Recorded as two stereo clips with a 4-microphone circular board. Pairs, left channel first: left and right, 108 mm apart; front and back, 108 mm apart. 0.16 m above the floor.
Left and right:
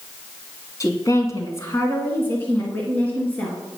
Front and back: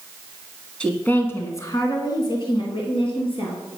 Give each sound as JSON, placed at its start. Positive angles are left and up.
{"t": 0.8, "sound": "a woman speaking", "azimuth_deg": 75, "distance_m": 1.8}